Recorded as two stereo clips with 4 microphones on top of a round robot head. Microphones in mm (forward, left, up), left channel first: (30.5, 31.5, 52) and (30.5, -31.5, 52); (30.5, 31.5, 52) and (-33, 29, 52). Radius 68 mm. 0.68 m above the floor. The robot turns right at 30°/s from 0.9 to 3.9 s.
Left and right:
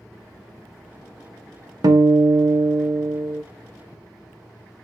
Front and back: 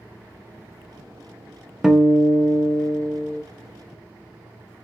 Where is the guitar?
100° right, 0.5 m; by 3.4 s 50° right, 0.5 m.